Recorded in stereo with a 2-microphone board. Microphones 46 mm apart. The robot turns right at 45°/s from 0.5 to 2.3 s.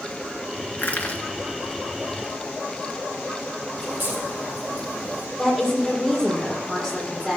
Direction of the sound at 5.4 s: 10° right (ahead or behind).